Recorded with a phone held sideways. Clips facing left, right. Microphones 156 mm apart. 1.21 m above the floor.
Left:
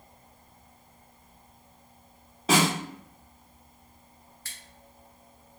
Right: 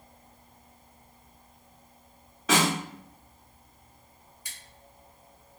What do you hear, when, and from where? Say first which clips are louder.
2.5 s a snare drum: left 1 dB; 35° left (ahead or behind), 1.3 m
4.5 s scissors: even; 15° right (ahead or behind), 0.6 m